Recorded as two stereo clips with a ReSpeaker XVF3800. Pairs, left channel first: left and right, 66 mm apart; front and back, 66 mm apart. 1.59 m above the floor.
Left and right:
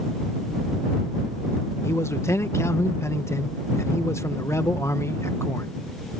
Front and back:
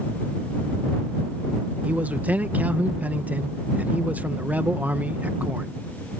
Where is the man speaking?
120° left.